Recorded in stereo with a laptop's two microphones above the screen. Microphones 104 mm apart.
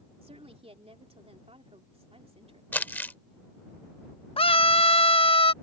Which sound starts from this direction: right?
A woman speaking, at 0.2 s.